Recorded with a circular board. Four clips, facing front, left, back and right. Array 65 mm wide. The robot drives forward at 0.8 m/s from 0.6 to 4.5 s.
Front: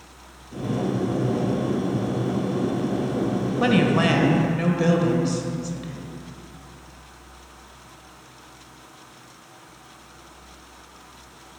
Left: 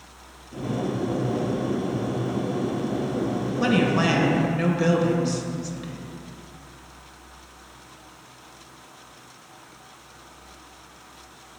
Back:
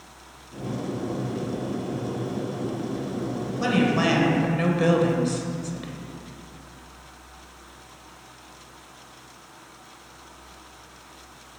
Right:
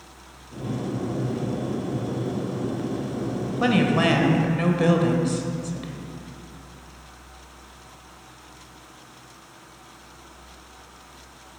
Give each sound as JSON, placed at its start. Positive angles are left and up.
{"t": 3.6, "sound": "a woman speaking", "azimuth_deg": -25, "distance_m": 1.2}